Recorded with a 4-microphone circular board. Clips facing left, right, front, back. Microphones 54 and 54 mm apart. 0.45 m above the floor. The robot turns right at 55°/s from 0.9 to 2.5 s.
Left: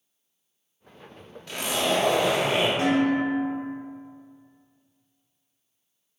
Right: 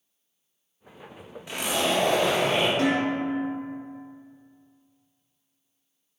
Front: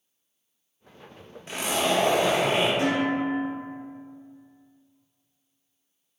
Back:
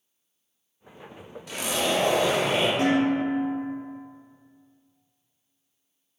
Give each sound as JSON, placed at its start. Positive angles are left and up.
{"t": 1.5, "sound": "a zipper", "azimuth_deg": -30, "distance_m": 0.6}
{"t": 2.8, "sound": "dishes clattering", "azimuth_deg": 145, "distance_m": 1.8}